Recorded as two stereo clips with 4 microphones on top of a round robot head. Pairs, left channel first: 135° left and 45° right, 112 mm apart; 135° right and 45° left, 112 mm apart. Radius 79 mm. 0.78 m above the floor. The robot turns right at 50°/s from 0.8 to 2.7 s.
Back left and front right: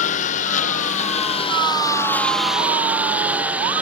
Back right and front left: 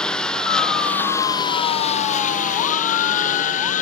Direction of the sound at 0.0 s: 145° left.